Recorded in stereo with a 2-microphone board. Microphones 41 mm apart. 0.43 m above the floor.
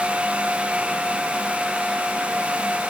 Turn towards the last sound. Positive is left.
No sound to turn to.